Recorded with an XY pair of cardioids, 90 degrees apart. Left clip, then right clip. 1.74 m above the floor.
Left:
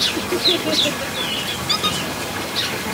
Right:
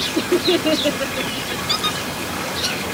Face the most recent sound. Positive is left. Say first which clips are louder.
# left 1 dB
turn(degrees=15)